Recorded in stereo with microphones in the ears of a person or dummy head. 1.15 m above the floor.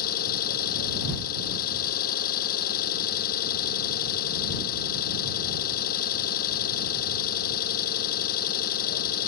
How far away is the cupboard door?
No cupboard door in this recording.